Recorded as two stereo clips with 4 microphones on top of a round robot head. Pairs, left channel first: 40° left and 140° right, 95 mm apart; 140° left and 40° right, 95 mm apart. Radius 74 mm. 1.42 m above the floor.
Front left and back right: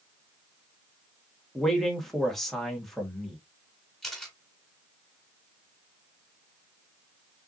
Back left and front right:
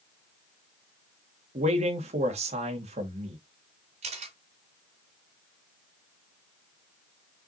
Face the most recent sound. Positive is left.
turn(degrees=-50)